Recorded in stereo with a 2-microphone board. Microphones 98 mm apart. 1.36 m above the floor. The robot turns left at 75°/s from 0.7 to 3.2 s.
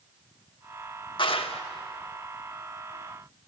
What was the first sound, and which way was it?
A clap, 125° left.